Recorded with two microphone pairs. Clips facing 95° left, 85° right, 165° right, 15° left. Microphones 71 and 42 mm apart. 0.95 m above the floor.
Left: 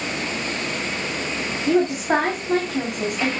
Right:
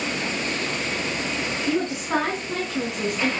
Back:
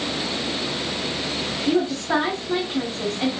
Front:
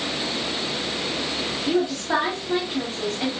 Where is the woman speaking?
105° left, 2.5 m.